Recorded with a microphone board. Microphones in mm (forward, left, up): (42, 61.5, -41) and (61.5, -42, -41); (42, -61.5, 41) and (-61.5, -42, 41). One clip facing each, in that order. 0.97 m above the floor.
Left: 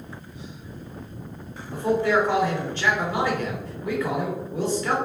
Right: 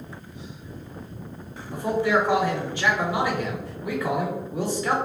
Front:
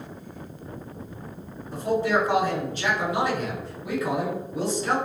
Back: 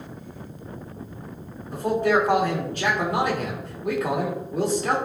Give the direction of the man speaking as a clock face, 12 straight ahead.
5 o'clock.